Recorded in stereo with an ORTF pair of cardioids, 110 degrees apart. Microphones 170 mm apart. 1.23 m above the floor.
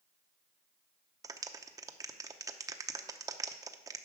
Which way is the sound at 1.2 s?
20° right.